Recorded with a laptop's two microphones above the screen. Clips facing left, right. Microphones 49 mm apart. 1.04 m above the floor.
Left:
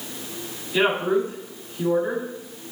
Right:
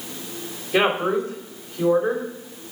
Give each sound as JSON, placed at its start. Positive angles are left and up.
{"t": 0.7, "sound": "a woman speaking", "side_deg": -60, "distance_m": 3.0}